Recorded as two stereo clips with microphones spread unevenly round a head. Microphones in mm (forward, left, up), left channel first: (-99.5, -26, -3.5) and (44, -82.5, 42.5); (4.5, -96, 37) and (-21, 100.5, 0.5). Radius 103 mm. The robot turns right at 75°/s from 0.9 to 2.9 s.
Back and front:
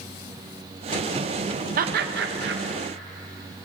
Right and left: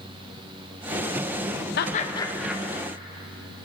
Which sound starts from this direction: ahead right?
Laughter, at 1.8 s.